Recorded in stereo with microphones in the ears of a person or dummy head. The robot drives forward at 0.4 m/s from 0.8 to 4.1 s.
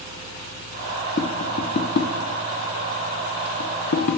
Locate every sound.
1.2 s tapping: 40° left (ahead or behind), 1.2 m; by 4.2 s 50° left (ahead or behind), 1.0 m